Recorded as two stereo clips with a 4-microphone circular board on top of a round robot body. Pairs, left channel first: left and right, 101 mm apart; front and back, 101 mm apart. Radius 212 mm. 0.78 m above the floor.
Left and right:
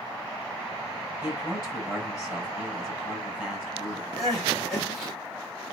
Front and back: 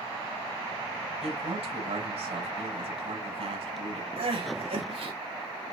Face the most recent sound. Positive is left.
turn(degrees=175)